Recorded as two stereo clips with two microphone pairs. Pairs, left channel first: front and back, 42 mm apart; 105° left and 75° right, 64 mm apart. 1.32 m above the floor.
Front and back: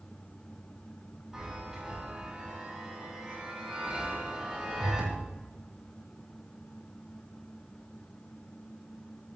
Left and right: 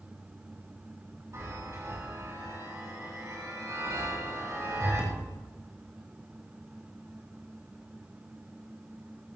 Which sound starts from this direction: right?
A chime, at 1.3 s.